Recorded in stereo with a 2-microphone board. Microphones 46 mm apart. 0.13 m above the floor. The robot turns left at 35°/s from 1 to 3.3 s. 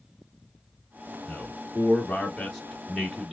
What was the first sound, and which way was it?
A man speaking, 35° left (ahead or behind).